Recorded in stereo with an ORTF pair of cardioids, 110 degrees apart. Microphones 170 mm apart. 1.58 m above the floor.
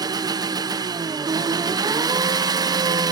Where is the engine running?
25° right, 0.9 m.